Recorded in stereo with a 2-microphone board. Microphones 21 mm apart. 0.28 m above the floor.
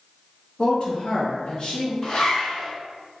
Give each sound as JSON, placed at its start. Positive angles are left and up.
{"t": 0.6, "sound": "a woman speaking", "side_deg": 40, "distance_m": 1.3}
{"t": 2.0, "sound": "a zipper", "side_deg": 45, "distance_m": 1.8}